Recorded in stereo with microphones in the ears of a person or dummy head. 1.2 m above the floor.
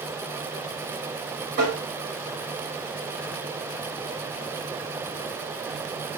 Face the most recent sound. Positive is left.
turn(degrees=-40)  # may be behind; listen again after turning